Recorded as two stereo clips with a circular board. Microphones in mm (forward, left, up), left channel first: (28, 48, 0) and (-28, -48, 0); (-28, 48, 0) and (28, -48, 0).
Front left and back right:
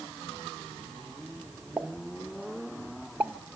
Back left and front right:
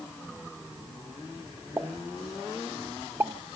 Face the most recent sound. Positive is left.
turn(degrees=-70)